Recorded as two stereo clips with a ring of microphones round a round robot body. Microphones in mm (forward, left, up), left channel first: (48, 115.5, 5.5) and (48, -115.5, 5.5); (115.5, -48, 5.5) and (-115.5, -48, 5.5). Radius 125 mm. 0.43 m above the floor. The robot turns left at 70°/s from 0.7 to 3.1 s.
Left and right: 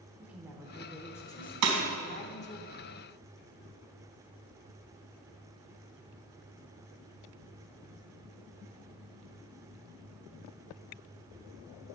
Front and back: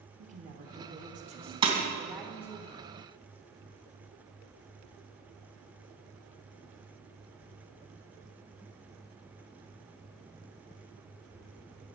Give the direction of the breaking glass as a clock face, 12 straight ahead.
4 o'clock.